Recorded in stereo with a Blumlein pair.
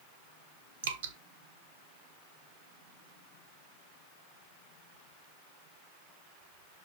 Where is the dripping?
60° right, 1.4 m.